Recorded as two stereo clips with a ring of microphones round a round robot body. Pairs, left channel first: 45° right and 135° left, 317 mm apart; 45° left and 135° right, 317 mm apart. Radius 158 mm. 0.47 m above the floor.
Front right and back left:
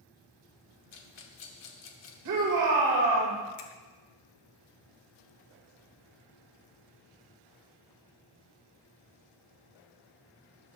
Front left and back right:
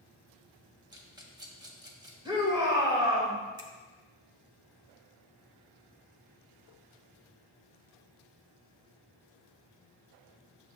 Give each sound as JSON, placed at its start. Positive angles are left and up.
{"t": 0.9, "sound": "a rattle", "azimuth_deg": -65, "distance_m": 1.0}
{"t": 2.2, "sound": "a shout", "azimuth_deg": 150, "distance_m": 2.5}
{"t": 3.6, "sound": "a finger snap", "azimuth_deg": -60, "distance_m": 1.0}